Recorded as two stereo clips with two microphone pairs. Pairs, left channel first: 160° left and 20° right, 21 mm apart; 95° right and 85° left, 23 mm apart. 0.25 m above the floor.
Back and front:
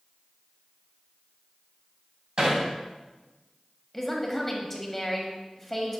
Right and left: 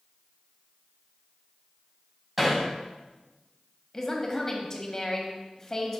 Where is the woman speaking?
125° right, 1.2 m.